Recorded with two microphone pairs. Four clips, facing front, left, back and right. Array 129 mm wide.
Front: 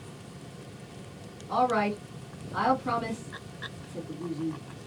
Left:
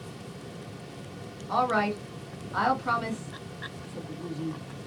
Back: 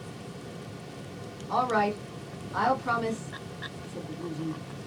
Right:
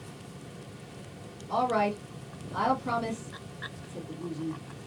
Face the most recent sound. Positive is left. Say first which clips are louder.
# left 1 dB, even
turn(degrees=100)